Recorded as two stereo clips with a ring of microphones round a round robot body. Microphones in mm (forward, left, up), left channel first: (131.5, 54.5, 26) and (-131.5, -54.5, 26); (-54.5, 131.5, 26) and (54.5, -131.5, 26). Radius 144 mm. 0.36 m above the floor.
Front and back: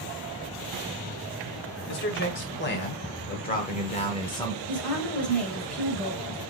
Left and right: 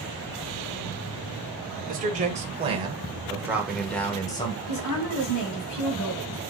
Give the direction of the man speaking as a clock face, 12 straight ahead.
12 o'clock.